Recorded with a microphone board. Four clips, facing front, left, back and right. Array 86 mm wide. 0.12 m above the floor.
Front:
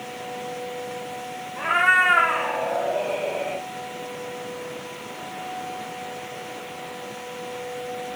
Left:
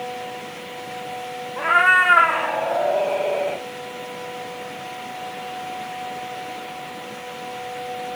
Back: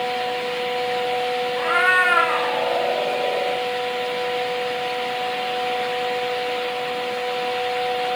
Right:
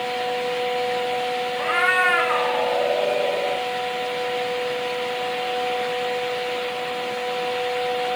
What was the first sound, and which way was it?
A cat meowing, 100° left.